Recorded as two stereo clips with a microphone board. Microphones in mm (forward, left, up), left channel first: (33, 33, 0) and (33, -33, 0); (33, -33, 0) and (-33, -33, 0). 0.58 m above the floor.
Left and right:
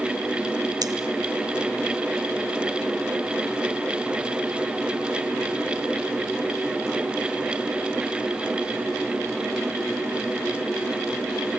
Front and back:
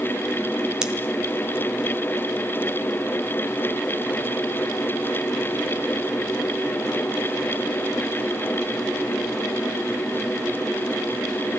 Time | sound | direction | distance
0.8 | scissors | 100° right | 2.5 m